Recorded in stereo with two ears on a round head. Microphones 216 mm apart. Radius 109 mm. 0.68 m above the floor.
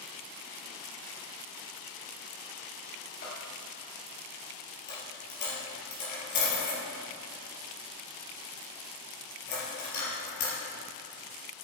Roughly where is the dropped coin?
Left.